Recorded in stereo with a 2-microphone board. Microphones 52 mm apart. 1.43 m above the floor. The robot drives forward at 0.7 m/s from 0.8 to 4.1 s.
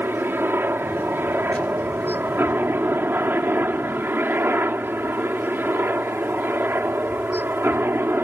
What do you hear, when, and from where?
0.0 s a helicopter: 45° right (ahead or behind); by 8.3 s 40° right (ahead or behind)